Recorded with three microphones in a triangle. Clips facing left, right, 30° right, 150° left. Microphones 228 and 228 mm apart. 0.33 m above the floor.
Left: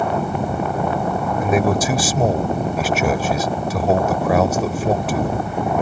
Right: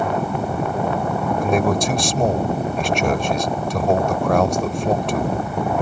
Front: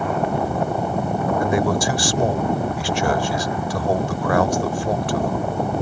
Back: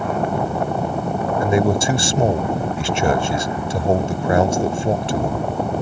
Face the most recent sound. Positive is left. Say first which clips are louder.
# left 1 dB, back 4 dB
turn(degrees=170)